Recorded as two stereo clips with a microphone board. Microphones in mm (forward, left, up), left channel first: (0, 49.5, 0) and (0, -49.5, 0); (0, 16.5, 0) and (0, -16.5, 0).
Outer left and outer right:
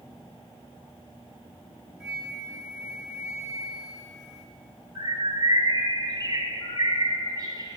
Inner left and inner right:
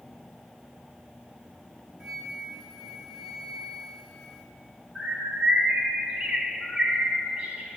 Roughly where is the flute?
Centre.